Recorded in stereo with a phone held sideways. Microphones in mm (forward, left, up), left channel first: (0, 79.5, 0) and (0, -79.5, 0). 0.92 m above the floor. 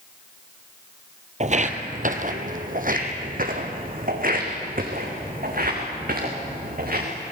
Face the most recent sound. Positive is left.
turn(degrees=-65)  # may be behind; listen again after turning